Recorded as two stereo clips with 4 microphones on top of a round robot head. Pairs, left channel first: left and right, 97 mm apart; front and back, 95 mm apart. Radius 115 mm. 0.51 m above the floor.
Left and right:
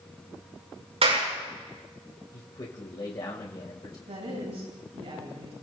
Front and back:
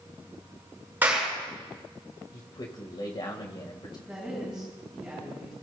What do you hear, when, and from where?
1.0 s a clap: 105° right, 8 m
2.3 s a man speaking: 40° left, 2.5 m
4.1 s a woman speaking: 95° right, 9.5 m